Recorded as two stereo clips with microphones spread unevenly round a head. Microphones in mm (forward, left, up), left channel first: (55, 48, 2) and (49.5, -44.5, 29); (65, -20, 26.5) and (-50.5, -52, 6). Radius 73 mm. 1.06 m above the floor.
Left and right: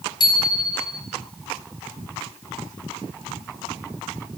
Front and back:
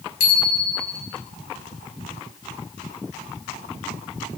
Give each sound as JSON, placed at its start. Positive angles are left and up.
{"t": 0.2, "sound": "a bicycle bell", "azimuth_deg": 45, "distance_m": 5.0}